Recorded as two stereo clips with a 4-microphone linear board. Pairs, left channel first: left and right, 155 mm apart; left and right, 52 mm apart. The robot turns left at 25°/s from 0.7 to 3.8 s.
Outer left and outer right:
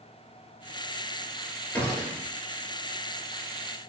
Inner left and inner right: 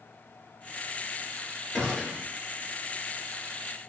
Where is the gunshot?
10° left (ahead or behind), 3.5 m; by 2.3 s 5° right (ahead or behind), 3.5 m.